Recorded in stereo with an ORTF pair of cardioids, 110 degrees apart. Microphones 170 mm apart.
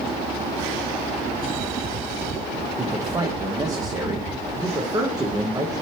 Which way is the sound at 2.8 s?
20° right.